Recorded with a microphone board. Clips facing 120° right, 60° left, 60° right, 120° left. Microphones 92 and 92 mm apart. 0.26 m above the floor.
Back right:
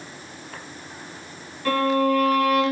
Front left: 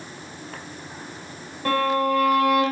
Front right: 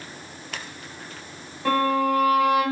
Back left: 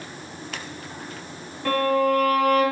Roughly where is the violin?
Ahead.